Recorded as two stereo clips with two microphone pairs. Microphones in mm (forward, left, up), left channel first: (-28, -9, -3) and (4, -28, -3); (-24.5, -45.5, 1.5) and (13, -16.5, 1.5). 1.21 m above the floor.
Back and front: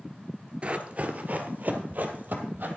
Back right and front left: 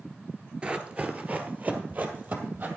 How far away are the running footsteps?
About 1.4 m.